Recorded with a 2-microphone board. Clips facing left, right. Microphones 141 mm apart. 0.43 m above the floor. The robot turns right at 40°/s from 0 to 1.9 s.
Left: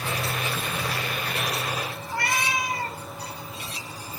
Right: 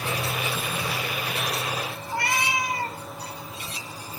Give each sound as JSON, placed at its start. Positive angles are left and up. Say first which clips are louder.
{"t": 2.1, "sound": "a cat meowing", "louder": "right 1 dB", "side_deg": -20, "distance_m": 0.9}